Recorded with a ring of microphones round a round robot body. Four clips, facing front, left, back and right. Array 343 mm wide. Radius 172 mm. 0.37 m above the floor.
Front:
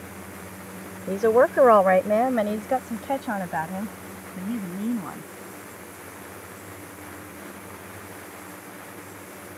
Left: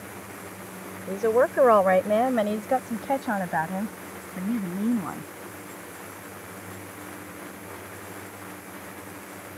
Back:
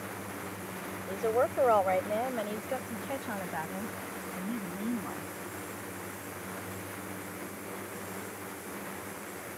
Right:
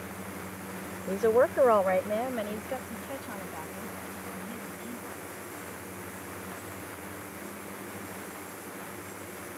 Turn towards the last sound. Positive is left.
turn(degrees=65)